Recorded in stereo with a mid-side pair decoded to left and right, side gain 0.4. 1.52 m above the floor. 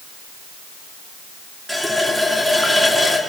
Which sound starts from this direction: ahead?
A running tap, at 1.7 s.